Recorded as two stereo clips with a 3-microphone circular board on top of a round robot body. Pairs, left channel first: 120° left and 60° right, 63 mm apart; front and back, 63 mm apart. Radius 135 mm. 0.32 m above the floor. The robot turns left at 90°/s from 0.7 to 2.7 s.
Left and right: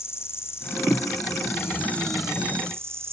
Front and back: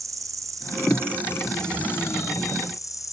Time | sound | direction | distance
0.0 | an insect | 165° left | ?